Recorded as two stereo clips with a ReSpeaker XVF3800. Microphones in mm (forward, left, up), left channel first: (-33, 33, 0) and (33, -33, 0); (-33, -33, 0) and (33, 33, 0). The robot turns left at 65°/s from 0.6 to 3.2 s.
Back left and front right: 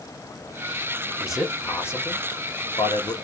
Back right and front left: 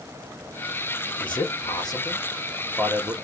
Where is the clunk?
I don't hear a clunk.